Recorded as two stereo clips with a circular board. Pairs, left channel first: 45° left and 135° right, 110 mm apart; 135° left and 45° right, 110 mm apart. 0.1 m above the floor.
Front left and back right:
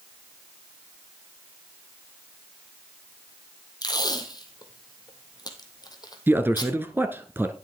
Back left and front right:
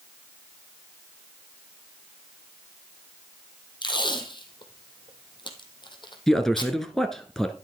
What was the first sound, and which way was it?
Tape being pulled, 95° left.